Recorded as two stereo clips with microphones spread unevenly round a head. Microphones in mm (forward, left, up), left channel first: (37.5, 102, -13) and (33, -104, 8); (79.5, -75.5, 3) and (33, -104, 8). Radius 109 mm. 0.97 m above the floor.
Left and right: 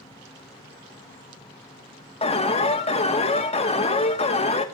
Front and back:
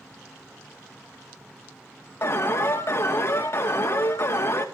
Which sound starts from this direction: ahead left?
An alarm, at 2.2 s.